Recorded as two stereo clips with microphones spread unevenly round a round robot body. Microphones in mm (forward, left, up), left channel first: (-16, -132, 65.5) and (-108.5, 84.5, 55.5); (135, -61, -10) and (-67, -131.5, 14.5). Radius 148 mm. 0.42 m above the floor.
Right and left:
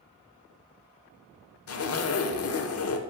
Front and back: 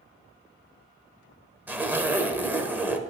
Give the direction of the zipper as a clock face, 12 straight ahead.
2 o'clock.